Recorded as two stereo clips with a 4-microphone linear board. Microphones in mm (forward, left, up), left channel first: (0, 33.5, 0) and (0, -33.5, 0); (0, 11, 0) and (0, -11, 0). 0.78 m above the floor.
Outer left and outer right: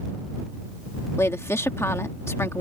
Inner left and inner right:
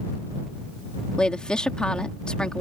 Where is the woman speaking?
45° left (ahead or behind).